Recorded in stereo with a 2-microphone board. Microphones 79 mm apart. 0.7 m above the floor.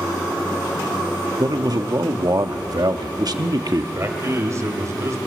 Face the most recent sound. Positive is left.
turn(degrees=-40)  # may be behind; listen again after turning